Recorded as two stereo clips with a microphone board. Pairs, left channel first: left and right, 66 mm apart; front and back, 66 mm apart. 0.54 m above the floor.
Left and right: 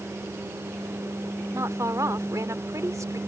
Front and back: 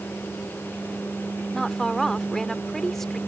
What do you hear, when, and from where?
1.5 s a woman speaking: 80° right